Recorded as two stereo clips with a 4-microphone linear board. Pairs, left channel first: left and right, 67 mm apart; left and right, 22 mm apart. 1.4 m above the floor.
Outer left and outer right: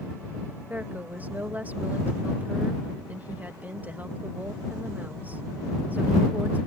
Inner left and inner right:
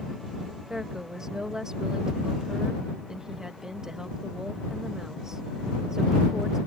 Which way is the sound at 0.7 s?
25° right (ahead or behind).